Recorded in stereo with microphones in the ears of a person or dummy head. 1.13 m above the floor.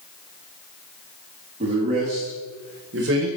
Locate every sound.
1.6 s a man speaking: 35° right (ahead or behind), 2 m; by 3.3 s 65° right (ahead or behind), 1.6 m